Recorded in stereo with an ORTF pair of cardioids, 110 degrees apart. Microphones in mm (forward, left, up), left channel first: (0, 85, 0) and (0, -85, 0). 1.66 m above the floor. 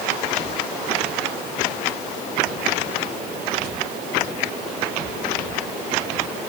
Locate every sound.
Only background noise.